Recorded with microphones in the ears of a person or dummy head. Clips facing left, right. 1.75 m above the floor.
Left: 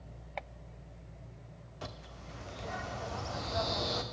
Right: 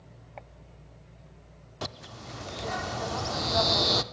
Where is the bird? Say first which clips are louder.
Right 7 dB; 75° right (ahead or behind), 0.6 m.